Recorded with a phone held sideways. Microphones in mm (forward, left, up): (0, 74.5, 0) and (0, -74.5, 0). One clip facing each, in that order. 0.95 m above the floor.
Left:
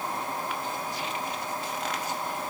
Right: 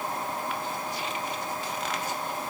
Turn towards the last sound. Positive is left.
No sound to turn to.